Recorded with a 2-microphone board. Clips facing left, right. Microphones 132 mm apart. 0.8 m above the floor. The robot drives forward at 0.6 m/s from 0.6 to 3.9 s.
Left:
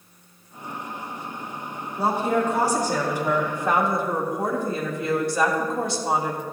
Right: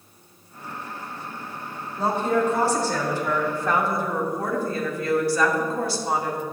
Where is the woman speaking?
10° left (ahead or behind), 2.5 m; by 6.4 s 20° left (ahead or behind), 1.6 m.